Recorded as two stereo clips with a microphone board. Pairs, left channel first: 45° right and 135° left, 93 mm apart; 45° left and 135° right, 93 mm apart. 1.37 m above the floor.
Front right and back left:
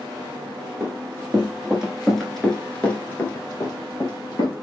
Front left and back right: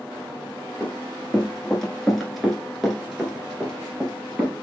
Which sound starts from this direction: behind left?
Running footsteps, at 0.8 s.